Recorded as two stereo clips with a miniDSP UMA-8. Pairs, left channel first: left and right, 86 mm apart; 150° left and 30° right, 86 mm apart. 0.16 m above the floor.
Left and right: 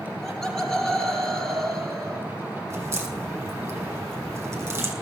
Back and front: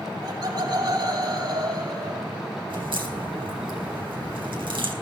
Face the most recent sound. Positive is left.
turn(degrees=-30)